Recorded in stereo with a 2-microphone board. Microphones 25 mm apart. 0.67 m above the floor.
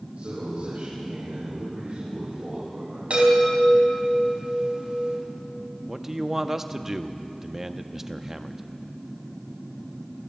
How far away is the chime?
About 5 m.